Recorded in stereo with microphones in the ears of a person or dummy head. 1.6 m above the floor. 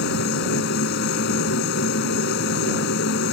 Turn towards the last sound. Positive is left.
turn(degrees=75)  # may be behind; listen again after turning